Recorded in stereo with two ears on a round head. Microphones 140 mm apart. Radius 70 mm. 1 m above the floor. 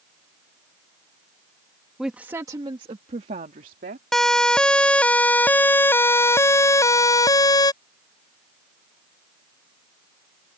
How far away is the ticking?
I don't hear ticking.